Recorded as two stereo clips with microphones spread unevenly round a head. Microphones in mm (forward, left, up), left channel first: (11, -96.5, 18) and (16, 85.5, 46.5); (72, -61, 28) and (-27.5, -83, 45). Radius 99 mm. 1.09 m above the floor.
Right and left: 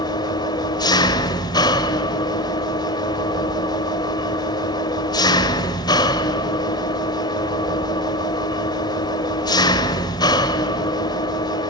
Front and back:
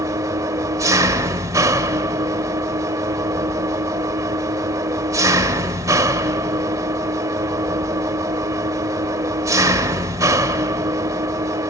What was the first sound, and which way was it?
An engine running, 165° right.